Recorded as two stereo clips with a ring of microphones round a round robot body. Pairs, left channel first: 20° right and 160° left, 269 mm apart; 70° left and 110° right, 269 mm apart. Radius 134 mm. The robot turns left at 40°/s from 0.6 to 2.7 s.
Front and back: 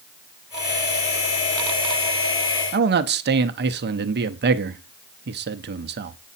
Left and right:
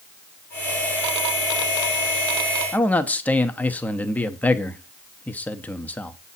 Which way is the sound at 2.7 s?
150° left.